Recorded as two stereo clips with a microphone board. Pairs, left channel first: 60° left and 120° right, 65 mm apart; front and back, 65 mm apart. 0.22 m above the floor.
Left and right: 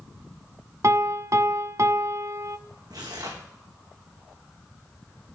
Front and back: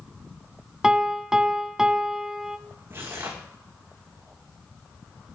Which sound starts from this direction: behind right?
Tearing paper, at 2.9 s.